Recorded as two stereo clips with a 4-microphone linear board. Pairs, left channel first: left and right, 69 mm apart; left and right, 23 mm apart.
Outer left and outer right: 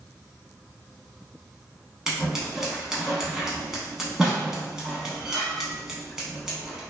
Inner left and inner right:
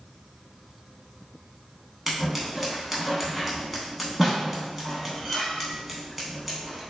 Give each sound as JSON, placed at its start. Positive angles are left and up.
{"t": 2.1, "sound": "scissors", "side_deg": -10, "distance_m": 0.7}